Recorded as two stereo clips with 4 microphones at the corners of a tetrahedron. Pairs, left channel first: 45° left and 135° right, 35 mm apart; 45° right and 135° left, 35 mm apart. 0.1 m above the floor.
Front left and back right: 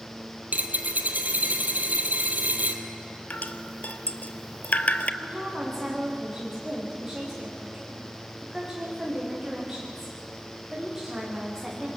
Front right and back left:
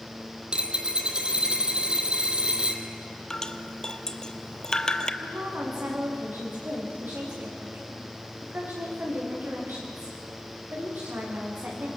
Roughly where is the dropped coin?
Behind.